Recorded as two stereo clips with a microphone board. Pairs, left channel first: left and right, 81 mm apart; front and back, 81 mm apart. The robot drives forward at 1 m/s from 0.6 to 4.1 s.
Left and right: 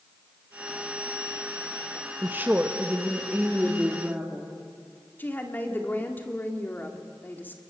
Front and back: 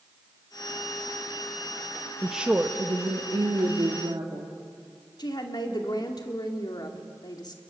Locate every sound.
2.2 s a woman speaking: 90° right, 0.9 m; by 4.5 s 170° right, 2 m
5.2 s a woman speaking: 25° left, 2 m